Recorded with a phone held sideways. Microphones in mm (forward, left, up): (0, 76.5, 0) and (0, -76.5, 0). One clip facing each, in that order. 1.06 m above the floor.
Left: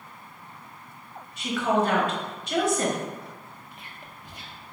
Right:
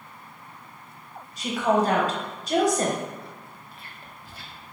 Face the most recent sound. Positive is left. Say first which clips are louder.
# even
turn(degrees=20)  # may be behind; listen again after turning